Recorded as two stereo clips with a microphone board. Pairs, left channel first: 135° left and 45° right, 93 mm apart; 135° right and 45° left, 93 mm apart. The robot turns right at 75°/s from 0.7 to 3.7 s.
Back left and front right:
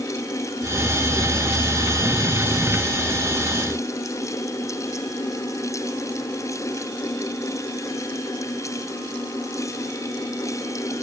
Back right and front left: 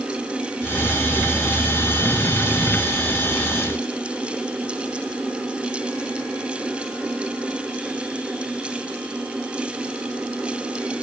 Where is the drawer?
No drawer in this recording.